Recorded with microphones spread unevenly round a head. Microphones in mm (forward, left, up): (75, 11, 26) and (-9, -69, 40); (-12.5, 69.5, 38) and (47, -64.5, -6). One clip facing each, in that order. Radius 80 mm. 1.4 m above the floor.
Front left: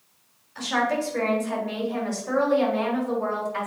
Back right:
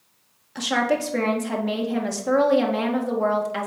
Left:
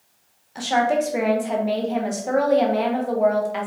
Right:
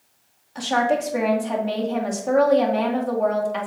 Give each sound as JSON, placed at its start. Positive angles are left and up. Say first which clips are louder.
{"t": 0.6, "sound": "a woman speaking", "louder": "back right 2 dB, left 1 dB", "azimuth_deg": -160, "distance_m": 1.4}